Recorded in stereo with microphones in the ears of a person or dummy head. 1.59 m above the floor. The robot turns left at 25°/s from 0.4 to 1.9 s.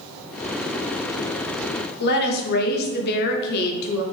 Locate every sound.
2.0 s a woman speaking: 50° left (ahead or behind), 0.6 m